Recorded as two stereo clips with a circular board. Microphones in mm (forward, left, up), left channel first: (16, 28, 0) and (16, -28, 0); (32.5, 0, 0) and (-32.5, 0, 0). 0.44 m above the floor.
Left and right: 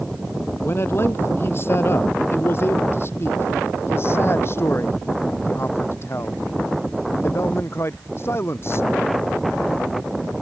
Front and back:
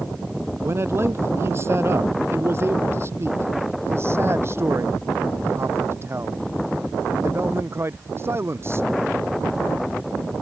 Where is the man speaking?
135° left; by 8.9 s 130° left.